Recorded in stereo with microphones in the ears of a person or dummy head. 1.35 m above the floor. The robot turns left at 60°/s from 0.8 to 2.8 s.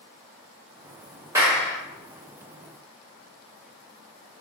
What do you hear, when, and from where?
1.4 s a clap: 10° right (ahead or behind), 0.7 m; by 1.8 s 15° left (ahead or behind), 0.7 m